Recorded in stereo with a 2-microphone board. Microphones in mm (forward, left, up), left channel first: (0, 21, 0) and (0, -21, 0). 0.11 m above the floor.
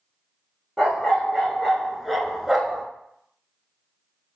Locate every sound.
0.8 s a dog barking: 10° left (ahead or behind), 1.2 m; by 2.9 s 10° right (ahead or behind), 0.6 m